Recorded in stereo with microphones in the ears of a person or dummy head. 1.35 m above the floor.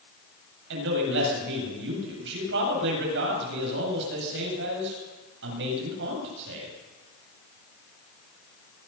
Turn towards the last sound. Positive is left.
turn(degrees=-70)  # may be behind; listen again after turning